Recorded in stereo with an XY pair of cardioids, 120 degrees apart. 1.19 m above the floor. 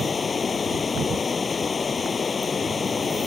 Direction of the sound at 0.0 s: 30° left.